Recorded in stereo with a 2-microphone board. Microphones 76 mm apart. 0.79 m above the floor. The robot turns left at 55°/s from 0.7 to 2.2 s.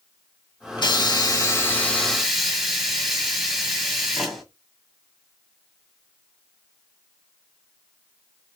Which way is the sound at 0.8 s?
75° left.